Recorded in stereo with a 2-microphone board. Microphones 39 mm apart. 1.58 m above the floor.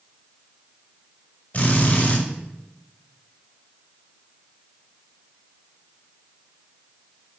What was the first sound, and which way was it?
A drill, 45° left (ahead or behind).